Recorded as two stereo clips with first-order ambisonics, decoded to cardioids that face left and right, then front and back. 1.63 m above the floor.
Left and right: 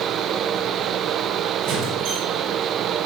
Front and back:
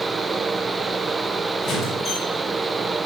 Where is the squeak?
65° right, 5.5 m.